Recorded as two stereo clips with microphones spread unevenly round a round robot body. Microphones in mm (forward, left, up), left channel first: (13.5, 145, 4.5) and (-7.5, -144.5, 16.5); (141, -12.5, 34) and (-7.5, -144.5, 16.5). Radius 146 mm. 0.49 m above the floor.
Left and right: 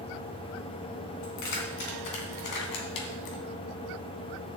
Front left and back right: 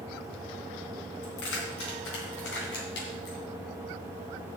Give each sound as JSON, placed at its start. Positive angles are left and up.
{"t": 1.2, "sound": "keys jangling", "azimuth_deg": 70, "distance_m": 3.0}